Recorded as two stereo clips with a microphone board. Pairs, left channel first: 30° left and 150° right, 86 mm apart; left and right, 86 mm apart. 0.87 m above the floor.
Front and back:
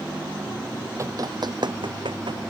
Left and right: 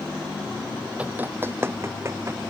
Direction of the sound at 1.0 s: 150° right.